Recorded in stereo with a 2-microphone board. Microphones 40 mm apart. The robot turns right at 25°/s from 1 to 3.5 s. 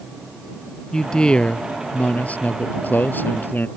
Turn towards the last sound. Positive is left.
turn(degrees=90)